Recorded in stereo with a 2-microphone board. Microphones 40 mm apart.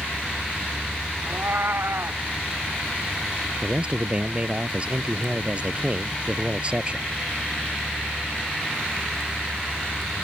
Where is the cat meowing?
70° right (ahead or behind).